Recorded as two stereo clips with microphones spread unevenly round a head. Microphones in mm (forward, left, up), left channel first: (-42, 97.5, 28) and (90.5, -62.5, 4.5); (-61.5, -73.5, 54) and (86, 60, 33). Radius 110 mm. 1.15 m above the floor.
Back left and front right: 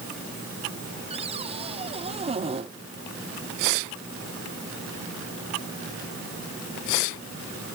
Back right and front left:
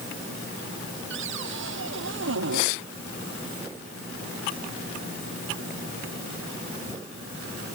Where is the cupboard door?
15° left.